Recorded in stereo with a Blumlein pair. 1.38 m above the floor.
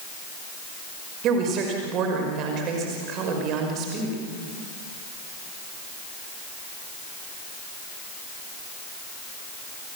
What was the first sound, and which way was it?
A woman speaking, 35° right.